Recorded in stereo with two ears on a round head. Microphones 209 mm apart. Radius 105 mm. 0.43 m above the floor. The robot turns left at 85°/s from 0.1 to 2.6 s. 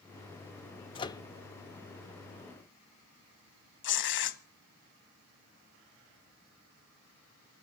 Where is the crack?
No crack in this recording.